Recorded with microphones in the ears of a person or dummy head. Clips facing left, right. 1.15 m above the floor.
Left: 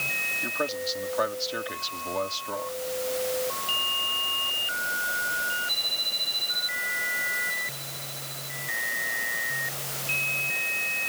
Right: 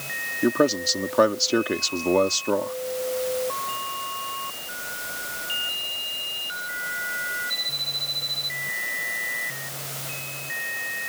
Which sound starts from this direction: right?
A man speaking, at 0.4 s.